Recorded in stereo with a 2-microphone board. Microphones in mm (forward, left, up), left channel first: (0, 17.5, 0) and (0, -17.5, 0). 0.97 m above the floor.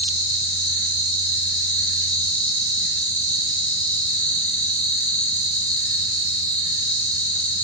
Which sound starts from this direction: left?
An insect, at 0.0 s.